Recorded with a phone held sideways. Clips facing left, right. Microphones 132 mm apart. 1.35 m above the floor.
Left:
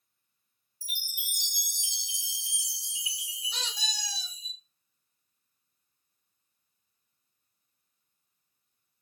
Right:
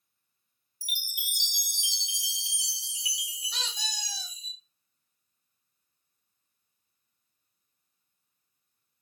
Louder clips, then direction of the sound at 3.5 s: Even; 25° left (ahead or behind).